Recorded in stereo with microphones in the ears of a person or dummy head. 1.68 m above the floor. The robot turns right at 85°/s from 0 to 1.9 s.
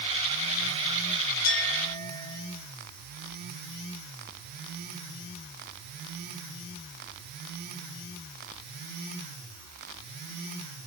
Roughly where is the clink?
Left.